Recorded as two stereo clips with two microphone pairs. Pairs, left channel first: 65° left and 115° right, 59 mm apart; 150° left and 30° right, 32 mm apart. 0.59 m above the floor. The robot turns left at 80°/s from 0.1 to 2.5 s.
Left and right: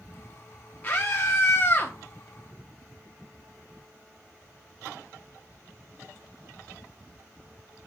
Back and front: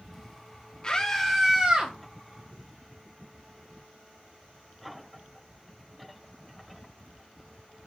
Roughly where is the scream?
Left.